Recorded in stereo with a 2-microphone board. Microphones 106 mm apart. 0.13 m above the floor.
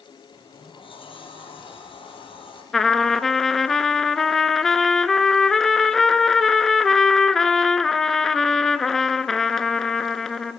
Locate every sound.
0.3 s a sliding door: 55° left (ahead or behind), 3 m
2.7 s a trumpet: 5° left (ahead or behind), 0.5 m